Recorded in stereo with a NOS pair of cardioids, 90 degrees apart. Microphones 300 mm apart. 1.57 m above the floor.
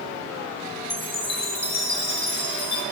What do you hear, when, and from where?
0.9 s a chime: 30° left, 3 m